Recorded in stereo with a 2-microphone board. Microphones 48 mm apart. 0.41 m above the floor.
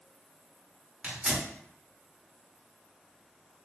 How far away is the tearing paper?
About 1.2 m.